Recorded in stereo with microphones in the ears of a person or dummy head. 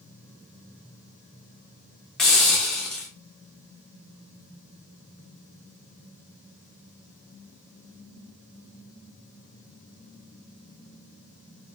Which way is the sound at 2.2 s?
Centre (ahead or behind).